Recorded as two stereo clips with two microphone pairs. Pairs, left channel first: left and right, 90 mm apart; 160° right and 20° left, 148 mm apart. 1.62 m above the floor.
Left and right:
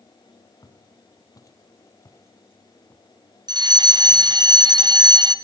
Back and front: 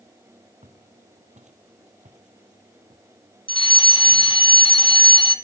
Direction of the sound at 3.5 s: 110° right.